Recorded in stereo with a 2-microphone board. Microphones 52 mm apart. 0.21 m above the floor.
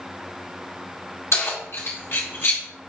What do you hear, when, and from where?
1.3 s keys jangling: 60° left (ahead or behind), 1.8 m; by 2.6 s 45° left (ahead or behind), 1.7 m